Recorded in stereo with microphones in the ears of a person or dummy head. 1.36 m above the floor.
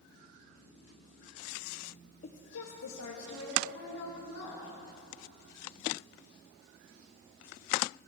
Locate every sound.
2.2 s a woman speaking: 40° left (ahead or behind), 0.8 m; by 4.7 s 65° left (ahead or behind), 3.5 m